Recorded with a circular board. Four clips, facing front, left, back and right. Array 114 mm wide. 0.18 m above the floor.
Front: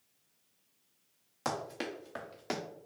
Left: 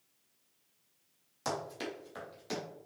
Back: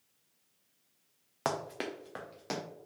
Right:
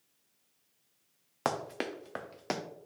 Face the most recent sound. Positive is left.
turn(degrees=-85)